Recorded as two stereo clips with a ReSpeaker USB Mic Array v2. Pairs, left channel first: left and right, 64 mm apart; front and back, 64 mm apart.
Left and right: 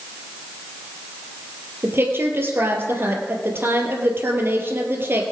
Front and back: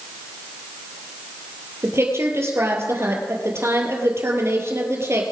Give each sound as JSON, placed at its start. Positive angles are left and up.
{"t": 1.8, "sound": "a woman speaking", "azimuth_deg": -140, "distance_m": 3.0}